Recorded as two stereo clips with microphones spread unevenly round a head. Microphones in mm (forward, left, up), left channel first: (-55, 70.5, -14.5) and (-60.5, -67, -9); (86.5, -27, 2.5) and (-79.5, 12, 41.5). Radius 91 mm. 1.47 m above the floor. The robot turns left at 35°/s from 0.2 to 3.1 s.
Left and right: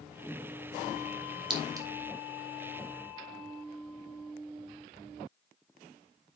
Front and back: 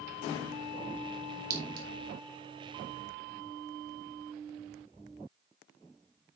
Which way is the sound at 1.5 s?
145° right.